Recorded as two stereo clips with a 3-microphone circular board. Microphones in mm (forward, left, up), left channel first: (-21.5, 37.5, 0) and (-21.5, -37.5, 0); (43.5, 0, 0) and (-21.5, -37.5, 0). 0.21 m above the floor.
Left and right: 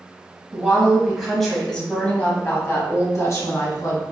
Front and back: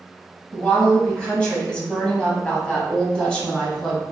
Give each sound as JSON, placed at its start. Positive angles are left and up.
{"t": 0.5, "sound": "a woman speaking", "azimuth_deg": -35, "distance_m": 1.2}